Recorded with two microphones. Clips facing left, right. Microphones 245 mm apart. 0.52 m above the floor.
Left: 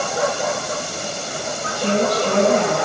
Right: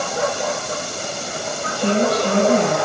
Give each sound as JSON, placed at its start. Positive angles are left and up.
{"t": 1.7, "sound": "a woman speaking", "side_deg": -50, "distance_m": 4.0}